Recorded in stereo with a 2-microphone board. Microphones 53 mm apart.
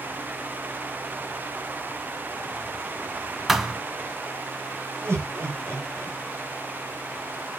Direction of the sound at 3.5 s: 5° right (ahead or behind).